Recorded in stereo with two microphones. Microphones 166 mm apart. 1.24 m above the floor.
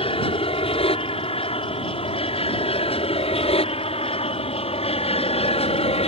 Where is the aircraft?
35° left (ahead or behind).